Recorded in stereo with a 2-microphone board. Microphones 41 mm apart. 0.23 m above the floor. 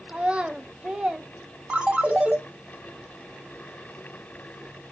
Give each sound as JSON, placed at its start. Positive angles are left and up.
{"t": 0.1, "sound": "a child speaking", "side_deg": -25, "distance_m": 0.6}
{"t": 1.7, "sound": "a ringtone", "side_deg": -25, "distance_m": 0.8}